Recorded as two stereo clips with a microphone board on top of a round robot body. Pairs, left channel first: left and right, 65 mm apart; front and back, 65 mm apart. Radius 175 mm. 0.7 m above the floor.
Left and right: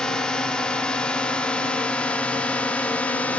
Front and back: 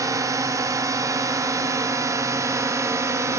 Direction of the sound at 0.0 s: 165° left.